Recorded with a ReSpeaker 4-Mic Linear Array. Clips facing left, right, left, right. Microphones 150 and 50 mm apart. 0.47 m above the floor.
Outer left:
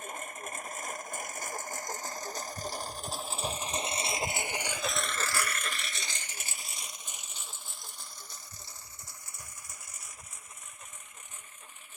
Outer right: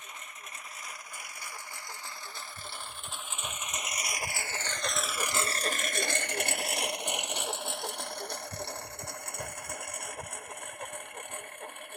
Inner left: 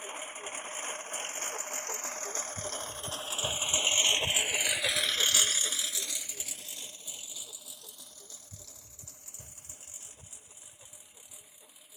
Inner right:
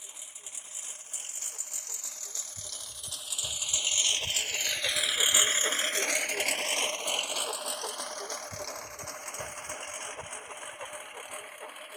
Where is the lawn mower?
50° left (ahead or behind); by 12.0 s 65° right (ahead or behind).